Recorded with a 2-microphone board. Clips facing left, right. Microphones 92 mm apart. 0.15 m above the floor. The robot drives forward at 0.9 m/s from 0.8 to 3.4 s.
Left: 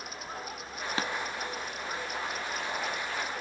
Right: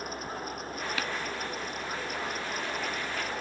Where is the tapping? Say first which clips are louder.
Left 4 dB; 30° left (ahead or behind), 0.8 m.